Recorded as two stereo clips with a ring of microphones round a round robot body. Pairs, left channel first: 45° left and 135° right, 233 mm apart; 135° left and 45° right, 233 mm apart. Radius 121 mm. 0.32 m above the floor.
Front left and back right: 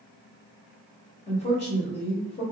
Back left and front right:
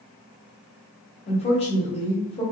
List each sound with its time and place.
1.3 s a woman speaking: 90° left, 1.1 m